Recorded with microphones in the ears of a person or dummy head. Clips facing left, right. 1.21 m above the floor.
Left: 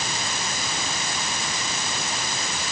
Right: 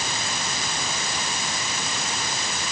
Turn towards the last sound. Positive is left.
No sound to turn to.